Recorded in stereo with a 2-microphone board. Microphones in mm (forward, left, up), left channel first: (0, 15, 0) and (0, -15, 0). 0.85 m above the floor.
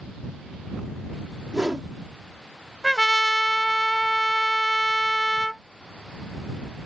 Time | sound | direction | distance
1.5 | a whoosh | 25° right (ahead or behind) | ?
2.8 | a trumpet | 5° left (ahead or behind) | ?